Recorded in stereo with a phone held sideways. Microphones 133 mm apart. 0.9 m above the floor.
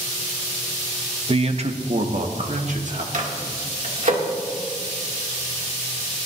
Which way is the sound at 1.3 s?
45° right (ahead or behind).